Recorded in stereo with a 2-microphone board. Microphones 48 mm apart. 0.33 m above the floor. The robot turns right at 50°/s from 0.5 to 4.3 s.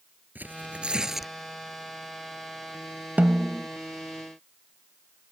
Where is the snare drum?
40° right (ahead or behind); by 3.7 s 20° right (ahead or behind).